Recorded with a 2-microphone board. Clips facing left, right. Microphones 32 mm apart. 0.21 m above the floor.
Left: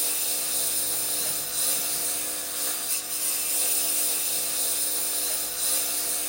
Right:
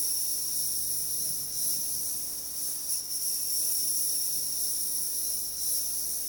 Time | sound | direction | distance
0.0 | a lawn mower | 75° left (ahead or behind) | ?